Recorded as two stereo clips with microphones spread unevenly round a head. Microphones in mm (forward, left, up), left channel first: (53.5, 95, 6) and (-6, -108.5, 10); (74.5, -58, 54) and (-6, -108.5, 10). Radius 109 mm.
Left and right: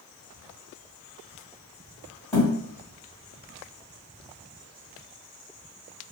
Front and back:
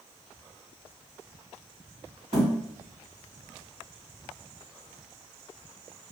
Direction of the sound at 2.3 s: 145° left.